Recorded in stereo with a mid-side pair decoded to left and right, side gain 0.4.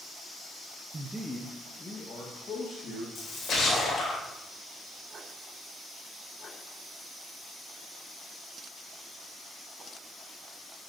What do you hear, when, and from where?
0.9 s a man speaking: 30° right, 0.7 m; by 3.0 s 55° left, 3 m
3.1 s a splash: 60° left, 3 m